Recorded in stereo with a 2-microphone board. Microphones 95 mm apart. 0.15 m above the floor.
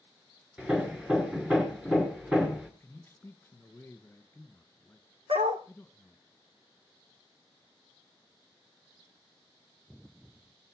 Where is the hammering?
10° right (ahead or behind), 2.0 m.